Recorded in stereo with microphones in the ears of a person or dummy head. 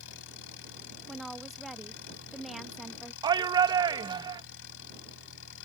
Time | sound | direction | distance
0.0 | an engine running | 70° left (ahead or behind) | ?
1.1 | a woman speaking | centre (ahead or behind) | ?
3.2 | a shout | 25° right (ahead or behind) | ?